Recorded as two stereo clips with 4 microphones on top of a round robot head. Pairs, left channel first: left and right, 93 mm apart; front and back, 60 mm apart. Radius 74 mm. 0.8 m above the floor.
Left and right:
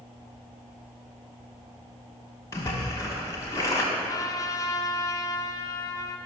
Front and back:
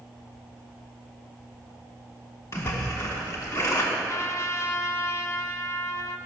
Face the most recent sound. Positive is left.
turn(degrees=40)